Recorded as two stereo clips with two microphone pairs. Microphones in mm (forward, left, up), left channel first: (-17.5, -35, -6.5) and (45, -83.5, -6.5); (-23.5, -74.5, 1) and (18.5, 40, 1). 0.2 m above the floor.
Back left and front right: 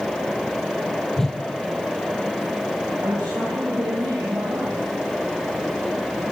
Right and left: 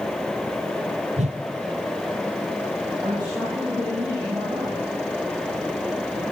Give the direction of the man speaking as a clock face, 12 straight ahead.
12 o'clock.